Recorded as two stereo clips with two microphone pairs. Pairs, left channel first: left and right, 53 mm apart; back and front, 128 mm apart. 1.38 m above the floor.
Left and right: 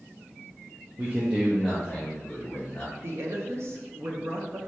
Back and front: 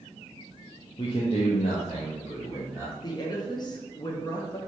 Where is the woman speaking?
120° right, 0.8 m.